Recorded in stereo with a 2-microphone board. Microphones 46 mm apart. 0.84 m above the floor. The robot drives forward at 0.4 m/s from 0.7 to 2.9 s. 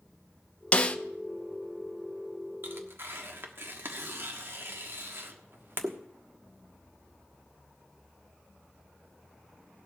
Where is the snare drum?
30° left (ahead or behind), 0.7 m.